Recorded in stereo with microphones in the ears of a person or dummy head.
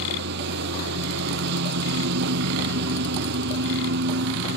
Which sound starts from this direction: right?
A lawn mower, at 0.0 s.